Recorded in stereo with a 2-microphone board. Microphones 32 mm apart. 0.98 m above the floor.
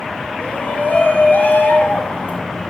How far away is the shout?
About 2.5 m.